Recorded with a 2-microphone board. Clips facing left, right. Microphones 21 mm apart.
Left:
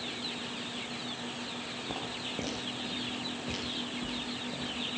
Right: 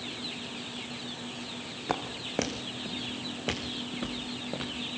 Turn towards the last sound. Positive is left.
turn(degrees=-75)  # may be behind; listen again after turning